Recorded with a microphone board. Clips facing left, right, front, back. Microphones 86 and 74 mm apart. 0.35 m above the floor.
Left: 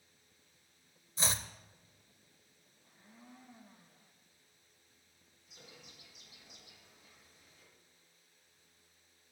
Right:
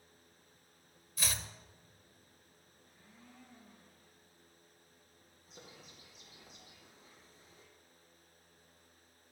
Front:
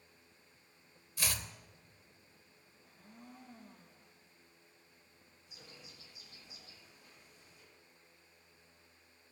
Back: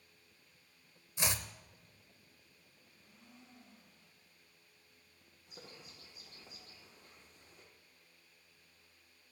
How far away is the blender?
About 3 m.